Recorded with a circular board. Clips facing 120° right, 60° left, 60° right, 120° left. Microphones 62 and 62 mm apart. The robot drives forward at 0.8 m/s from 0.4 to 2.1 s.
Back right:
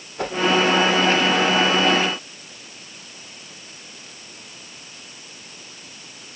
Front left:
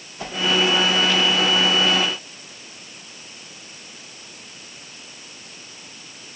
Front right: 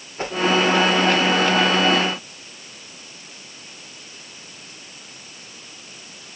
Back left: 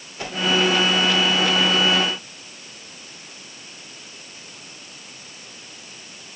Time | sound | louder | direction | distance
0.2 | a whoosh | back right 6 dB, front right 4 dB | 110° right | 1.7 m